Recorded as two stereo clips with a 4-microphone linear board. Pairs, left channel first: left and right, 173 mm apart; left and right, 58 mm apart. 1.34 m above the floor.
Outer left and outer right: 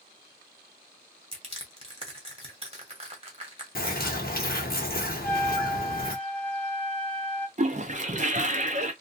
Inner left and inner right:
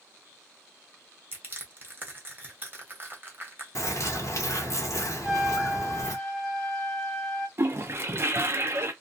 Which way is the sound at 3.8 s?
60° left (ahead or behind).